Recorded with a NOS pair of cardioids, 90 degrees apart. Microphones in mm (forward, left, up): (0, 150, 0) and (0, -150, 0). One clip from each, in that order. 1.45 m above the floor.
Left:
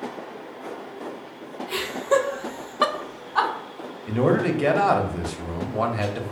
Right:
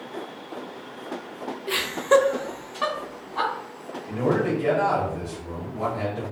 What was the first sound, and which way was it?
Laughter, 45° right.